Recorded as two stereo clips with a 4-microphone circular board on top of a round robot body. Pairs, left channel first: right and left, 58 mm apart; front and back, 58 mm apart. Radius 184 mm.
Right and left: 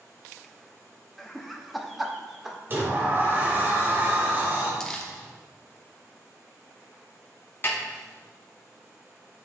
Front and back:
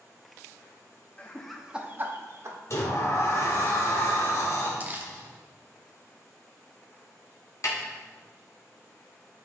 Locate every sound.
1.2 s laughter: 5° right, 1.3 m; by 2.6 s 175° left, 1.8 m
2.7 s a sliding door: 35° left, 2 m
4.8 s crumpling: 165° right, 1.3 m
7.6 s a snare drum: 35° right, 2.5 m